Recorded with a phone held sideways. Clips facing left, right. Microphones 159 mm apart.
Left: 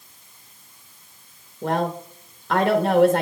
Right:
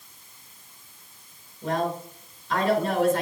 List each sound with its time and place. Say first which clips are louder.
1.6 s a woman speaking: left 3 dB; 70° left (ahead or behind), 1.2 m